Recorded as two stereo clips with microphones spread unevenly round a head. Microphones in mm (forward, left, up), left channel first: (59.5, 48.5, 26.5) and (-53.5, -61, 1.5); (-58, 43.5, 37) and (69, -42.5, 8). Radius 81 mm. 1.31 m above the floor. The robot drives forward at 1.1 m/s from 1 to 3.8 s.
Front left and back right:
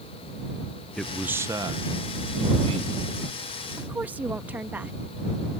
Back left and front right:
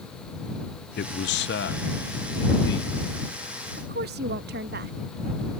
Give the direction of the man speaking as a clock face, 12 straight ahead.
7 o'clock.